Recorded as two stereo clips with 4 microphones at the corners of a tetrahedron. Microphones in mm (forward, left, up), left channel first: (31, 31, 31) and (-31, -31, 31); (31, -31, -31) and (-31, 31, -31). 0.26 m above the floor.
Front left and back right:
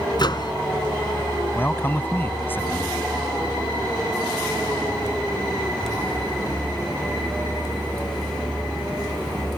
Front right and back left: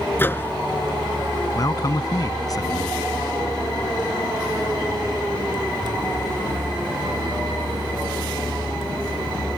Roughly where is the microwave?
Ahead.